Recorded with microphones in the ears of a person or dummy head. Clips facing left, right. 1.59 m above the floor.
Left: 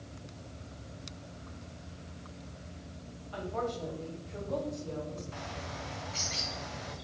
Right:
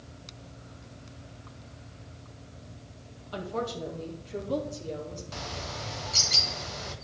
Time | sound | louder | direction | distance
3.3 | a woman speaking | right 2 dB | 55° right (ahead or behind) | 2.5 m
5.3 | a bird | right 3 dB | 55° right (ahead or behind) | 1.3 m